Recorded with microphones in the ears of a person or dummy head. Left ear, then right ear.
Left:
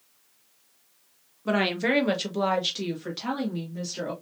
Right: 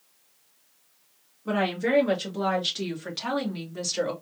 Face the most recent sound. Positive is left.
turn(degrees=-30)  # may be behind; listen again after turning